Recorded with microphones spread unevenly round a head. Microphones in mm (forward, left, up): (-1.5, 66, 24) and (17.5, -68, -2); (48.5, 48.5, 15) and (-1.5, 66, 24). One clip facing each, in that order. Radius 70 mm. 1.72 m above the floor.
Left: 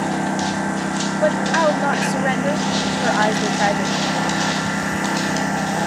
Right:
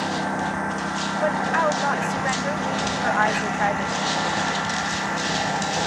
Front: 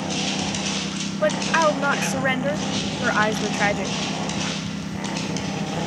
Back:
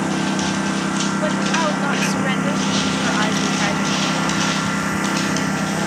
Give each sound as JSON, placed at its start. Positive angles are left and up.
{"t": 0.0, "sound": "a lawn mower", "azimuth_deg": 160}
{"t": 1.2, "sound": "a woman speaking", "azimuth_deg": 50}